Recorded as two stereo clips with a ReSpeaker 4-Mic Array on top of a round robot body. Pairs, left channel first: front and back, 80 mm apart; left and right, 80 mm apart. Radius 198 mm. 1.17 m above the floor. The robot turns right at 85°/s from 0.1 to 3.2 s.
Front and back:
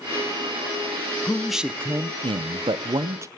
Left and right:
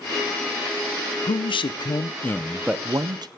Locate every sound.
1.2 s a man speaking: 70° left, 0.8 m; by 3.3 s 125° right, 0.8 m